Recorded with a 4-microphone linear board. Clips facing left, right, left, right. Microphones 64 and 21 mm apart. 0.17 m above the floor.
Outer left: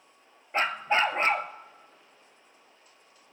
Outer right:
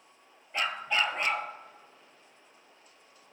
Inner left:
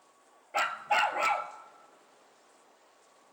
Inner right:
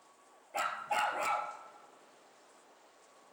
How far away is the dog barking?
About 0.8 m.